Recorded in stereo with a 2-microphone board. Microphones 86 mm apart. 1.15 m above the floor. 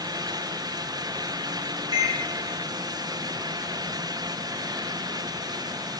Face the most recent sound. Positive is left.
turn(degrees=-55)  # may be behind; listen again after turning